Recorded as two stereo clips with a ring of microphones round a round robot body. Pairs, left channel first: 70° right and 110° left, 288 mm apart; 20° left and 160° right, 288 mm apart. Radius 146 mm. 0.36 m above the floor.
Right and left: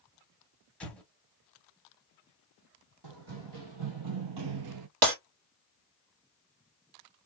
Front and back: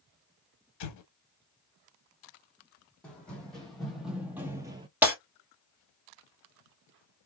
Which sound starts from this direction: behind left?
Breaking glass, at 5.0 s.